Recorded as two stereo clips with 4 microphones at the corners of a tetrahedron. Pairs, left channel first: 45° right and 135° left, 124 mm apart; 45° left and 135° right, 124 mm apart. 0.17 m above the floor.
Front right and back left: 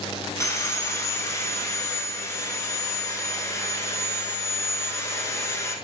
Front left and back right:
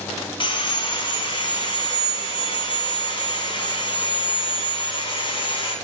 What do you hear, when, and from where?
0.4 s sawing: 15° left, 1.0 m